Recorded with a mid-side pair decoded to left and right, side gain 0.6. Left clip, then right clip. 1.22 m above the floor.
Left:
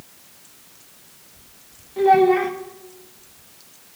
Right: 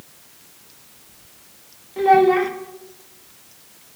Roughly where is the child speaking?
Ahead.